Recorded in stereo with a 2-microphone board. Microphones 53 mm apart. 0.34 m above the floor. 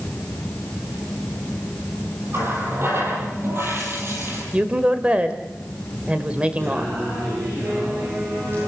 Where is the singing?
45° right (ahead or behind), 9 m.